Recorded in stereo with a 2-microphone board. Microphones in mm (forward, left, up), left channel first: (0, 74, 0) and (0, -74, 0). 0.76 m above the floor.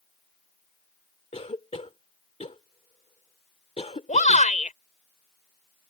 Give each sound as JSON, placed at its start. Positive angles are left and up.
{"t": 1.3, "sound": "a cough", "side_deg": 45}
{"t": 4.1, "sound": "a shout", "side_deg": 55}